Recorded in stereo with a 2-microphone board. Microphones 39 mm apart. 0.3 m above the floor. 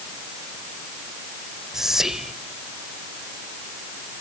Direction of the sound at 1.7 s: 10° right (ahead or behind).